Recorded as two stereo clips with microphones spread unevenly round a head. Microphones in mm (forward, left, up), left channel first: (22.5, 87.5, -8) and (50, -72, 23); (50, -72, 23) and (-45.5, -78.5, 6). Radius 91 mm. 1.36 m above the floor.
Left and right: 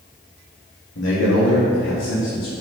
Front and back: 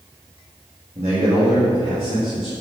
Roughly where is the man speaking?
Behind left.